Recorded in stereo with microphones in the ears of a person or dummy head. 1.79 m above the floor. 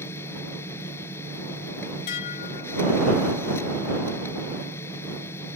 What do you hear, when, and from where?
0.0 s a machine running: 15° left (ahead or behind)
2.1 s dishes clattering: 55° left (ahead or behind)